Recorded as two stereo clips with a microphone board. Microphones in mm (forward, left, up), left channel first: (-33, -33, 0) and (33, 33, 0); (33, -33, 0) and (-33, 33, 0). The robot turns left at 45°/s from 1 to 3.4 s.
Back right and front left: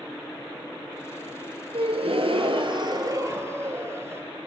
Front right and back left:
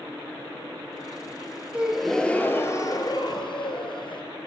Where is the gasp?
60° left, 2.5 m; by 4.2 s 15° right, 2.5 m.